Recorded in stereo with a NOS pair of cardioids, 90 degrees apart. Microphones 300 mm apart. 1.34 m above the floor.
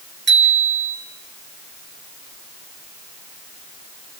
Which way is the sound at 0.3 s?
35° right.